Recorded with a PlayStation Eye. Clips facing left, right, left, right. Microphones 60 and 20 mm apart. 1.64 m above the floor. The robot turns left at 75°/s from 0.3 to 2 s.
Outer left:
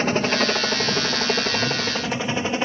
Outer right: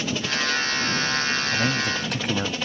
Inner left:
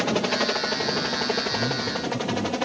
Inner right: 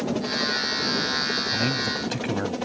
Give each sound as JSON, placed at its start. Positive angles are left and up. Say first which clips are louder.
{"t": 0.0, "sound": "a helicopter", "louder": "outer left 6 dB, inner left 2 dB", "side_deg": 40}
{"t": 1.5, "sound": "a man speaking", "louder": "even, inner right 1 dB", "azimuth_deg": -80}